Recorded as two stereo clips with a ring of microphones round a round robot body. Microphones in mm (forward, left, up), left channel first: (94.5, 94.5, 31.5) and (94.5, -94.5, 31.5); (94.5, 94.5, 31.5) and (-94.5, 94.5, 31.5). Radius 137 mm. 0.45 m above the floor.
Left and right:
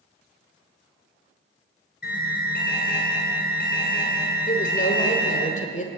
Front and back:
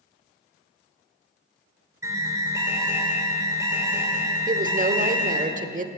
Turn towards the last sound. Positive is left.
turn(degrees=140)